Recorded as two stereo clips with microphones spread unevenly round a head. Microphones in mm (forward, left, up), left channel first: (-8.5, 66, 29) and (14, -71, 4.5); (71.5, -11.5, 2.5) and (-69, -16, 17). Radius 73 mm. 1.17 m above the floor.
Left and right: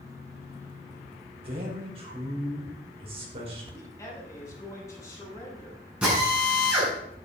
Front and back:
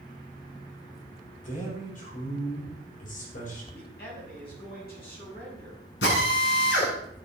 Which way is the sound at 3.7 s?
30° left.